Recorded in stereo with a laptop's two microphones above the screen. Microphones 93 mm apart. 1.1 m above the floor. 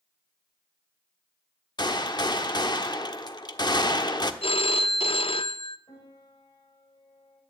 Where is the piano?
80° left, 6 m.